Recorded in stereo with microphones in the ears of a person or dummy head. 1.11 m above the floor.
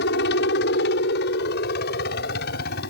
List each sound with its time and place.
0.0 s a helicopter: 60° left (ahead or behind); by 2.9 s 55° left (ahead or behind)